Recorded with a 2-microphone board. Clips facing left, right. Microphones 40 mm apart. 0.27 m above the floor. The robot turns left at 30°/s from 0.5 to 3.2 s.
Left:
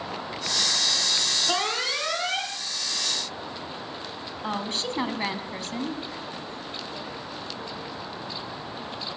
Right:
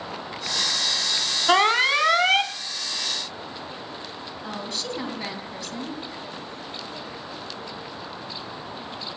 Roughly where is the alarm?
Ahead right.